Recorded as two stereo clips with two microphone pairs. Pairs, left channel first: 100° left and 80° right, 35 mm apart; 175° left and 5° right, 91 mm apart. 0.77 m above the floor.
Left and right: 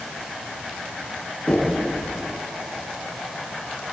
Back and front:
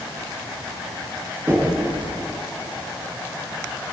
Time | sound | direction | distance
1.5 | knocking | 55° left | 8 m